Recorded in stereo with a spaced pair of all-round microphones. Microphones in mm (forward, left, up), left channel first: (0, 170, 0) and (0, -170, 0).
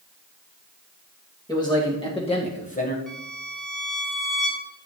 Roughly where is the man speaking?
Centre.